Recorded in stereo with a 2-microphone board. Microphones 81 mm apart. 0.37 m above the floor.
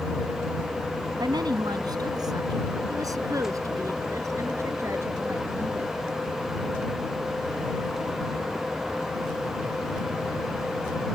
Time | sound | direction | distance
1.2 | a woman speaking | 60° right (ahead or behind) | ?